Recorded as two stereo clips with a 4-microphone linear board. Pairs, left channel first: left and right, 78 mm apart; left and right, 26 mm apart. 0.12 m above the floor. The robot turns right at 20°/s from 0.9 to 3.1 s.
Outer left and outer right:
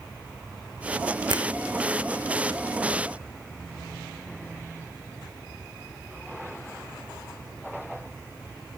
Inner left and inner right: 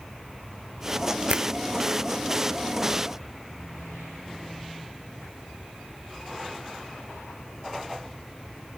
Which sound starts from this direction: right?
A finger snap, at 1.3 s.